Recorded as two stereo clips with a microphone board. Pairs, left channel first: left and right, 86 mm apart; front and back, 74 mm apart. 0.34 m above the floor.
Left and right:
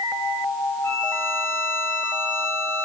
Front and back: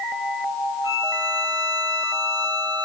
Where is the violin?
160° left, 3.5 m.